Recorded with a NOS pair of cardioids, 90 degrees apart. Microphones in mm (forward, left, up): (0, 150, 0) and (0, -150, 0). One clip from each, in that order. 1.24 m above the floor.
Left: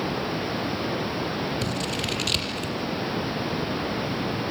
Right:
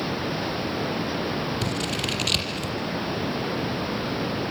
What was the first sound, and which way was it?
Scissors, 10° right.